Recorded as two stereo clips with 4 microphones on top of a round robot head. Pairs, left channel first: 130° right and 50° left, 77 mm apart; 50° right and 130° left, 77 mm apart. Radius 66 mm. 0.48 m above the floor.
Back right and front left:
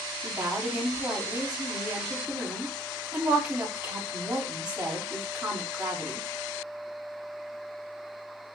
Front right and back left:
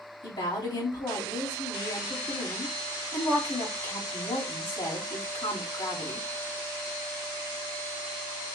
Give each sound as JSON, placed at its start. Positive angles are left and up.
{"t": 0.2, "sound": "a woman speaking", "azimuth_deg": -25, "distance_m": 2.5}